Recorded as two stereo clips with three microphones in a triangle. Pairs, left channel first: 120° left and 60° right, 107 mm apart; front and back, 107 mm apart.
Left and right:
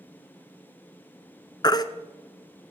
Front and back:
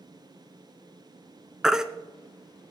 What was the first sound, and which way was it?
A baby crying, 95° left.